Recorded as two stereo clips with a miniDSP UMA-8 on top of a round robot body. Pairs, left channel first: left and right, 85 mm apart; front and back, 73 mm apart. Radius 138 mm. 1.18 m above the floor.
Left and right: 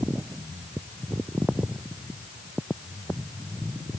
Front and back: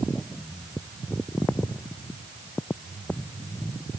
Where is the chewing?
I don't hear chewing.